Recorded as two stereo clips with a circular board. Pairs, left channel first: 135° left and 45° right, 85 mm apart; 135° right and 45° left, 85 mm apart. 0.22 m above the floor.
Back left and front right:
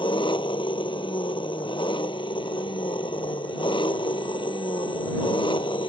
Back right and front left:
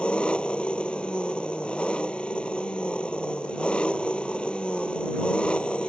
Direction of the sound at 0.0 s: 145° left.